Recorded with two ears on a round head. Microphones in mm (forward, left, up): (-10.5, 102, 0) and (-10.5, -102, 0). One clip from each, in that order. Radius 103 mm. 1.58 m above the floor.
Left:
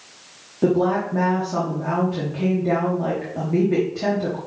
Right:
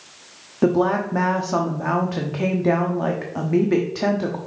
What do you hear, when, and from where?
0.6 s a woman speaking: 55° right (ahead or behind), 0.9 m